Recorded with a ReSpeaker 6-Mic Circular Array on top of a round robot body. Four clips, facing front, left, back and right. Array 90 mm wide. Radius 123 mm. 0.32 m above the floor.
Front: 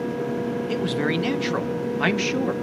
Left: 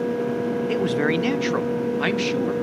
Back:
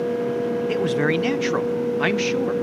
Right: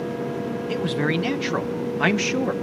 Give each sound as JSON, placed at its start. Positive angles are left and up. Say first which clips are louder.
{"t": 0.7, "sound": "a man speaking", "louder": "left 1 dB, back 3 dB", "azimuth_deg": 145, "distance_m": 1.3}